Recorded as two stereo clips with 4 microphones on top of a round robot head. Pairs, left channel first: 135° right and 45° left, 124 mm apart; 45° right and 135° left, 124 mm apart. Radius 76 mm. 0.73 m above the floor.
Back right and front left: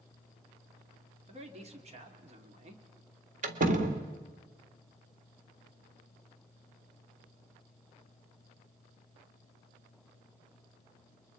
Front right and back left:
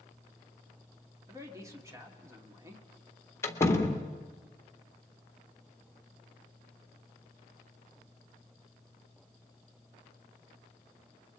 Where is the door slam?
25° left, 1.8 m.